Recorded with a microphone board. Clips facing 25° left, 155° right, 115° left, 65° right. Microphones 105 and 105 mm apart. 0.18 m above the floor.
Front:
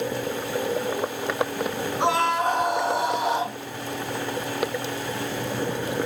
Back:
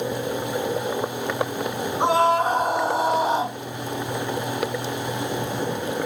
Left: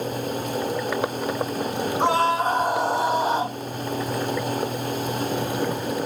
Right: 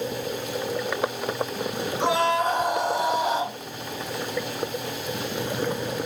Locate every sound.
2.0 s a scream: 145° left, 1.9 m